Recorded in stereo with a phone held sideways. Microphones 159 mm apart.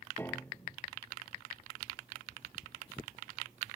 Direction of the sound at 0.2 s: 15° left (ahead or behind).